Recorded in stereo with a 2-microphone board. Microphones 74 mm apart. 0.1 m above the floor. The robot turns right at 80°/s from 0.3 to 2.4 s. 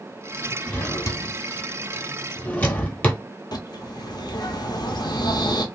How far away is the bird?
About 0.6 m.